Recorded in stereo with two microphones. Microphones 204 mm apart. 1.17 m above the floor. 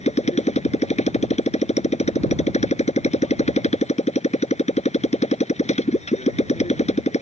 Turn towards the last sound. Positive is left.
turn(degrees=30)  # may be behind; listen again after turning